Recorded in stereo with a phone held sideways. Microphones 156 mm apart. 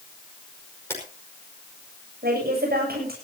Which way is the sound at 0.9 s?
15° left (ahead or behind).